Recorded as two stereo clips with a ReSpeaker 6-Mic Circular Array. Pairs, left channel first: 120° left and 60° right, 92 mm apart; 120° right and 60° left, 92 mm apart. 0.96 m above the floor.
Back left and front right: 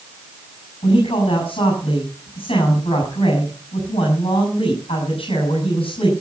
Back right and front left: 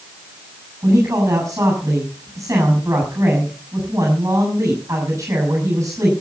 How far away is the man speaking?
About 7 m.